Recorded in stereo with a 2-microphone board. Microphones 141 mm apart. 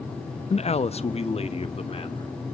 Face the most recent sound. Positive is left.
turn(degrees=45)  # may be behind; listen again after turning